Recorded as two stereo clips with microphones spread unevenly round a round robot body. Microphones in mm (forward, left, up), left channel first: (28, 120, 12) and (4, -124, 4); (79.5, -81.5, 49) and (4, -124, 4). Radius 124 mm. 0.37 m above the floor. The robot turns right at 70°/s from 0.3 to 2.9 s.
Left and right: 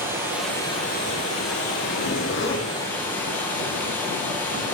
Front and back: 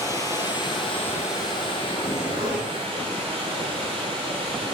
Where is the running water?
15° right, 3 m; by 4.7 s 165° left, 3 m.